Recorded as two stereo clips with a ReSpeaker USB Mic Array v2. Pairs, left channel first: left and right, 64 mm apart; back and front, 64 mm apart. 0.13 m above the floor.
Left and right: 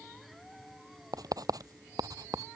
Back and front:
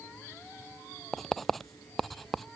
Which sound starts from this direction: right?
Writing, at 1.1 s.